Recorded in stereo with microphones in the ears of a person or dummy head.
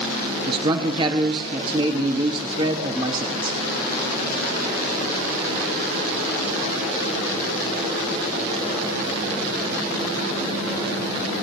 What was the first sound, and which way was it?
A man speaking, 30° right (ahead or behind).